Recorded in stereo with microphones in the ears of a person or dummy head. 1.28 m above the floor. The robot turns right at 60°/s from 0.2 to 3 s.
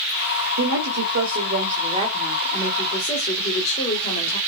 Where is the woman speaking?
110° right, 3.5 m; by 4.4 s 35° left, 3.5 m.